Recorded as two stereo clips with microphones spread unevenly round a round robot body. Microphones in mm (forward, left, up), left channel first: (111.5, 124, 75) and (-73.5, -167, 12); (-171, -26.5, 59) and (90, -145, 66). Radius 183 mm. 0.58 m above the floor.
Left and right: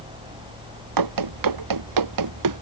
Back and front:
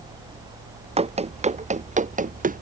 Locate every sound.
1.0 s running footsteps: 95° right; by 2.6 s 85° right